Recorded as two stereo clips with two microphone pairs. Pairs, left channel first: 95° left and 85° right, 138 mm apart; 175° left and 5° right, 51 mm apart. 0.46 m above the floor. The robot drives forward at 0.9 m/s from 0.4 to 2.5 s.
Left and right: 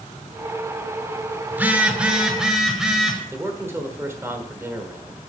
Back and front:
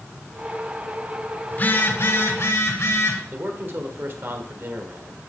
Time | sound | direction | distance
1.5 | a phone buzzing | 150° right | 0.8 m
3.3 | a man speaking | 20° right | 1.4 m